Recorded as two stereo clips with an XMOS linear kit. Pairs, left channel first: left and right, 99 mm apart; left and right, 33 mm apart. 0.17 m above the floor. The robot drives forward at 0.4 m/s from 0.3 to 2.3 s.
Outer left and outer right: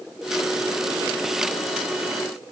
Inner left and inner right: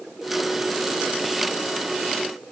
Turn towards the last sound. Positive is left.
No sound to turn to.